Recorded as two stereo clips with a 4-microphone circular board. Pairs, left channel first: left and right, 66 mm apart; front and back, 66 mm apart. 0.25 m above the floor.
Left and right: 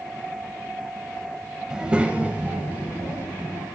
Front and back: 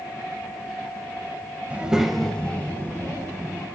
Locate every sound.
1.7 s a child speaking: 155° right, 0.5 m; by 3.7 s 30° right, 1.0 m